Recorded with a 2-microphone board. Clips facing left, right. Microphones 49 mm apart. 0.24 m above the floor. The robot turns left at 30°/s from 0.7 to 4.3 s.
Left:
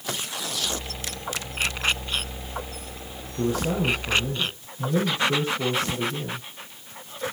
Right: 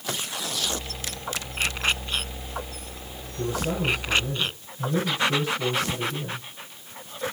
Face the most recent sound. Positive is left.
turn(degrees=30)  # may be behind; listen again after turning